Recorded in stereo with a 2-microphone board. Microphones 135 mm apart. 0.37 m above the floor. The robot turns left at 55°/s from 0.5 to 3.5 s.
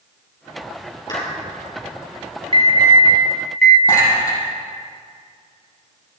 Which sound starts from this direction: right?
An alarm, at 2.5 s.